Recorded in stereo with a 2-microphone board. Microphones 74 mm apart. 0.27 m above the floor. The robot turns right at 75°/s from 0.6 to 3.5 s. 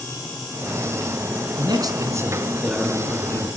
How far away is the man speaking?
About 3.5 m.